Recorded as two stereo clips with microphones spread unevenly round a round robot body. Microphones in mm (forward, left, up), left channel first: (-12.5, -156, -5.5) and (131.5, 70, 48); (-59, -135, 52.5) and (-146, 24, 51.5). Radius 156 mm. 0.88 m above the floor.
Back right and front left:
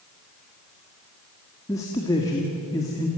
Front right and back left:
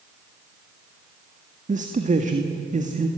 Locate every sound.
1.7 s a man speaking: 165° left, 1.8 m